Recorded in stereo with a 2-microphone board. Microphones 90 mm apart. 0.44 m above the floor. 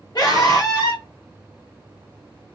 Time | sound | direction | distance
0.1 | a scream | 50° left (ahead or behind) | 1.4 m